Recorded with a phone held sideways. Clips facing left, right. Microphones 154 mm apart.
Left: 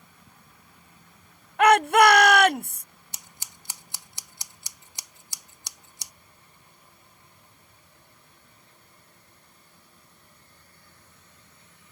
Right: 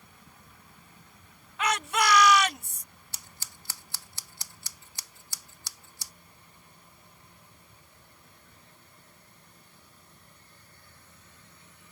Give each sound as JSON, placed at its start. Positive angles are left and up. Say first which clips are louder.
{"t": 1.6, "sound": "a shout", "louder": "left 12 dB", "side_deg": 60}
{"t": 3.1, "sound": "scissors", "louder": "left 1 dB", "side_deg": 20}